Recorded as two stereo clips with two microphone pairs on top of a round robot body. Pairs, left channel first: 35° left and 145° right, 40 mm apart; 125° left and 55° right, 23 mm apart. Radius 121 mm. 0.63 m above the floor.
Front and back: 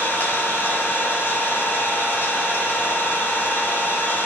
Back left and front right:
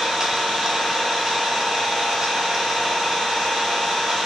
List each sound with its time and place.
0.0 s an engine running: 10° left, 5.5 m